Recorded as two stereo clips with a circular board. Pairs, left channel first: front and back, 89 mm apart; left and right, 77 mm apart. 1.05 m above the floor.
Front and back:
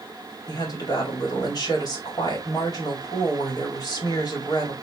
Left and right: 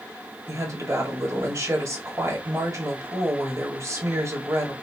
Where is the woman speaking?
45° right, 1.9 m.